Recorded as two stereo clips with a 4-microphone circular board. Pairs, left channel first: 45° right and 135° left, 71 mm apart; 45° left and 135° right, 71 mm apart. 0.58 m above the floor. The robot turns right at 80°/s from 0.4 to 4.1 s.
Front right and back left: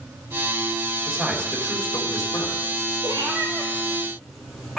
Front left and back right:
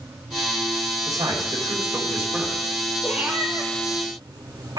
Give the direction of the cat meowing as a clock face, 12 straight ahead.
7 o'clock.